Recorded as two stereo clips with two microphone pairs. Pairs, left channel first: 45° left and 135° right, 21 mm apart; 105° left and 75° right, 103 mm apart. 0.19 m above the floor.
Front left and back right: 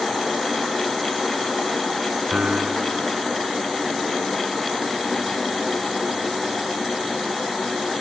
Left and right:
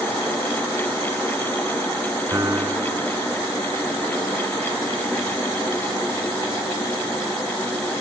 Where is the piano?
125° right.